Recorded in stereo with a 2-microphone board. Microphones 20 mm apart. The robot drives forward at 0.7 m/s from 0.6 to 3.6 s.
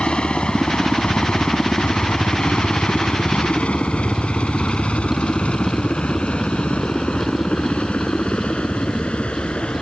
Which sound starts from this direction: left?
A helicopter, at 0.0 s.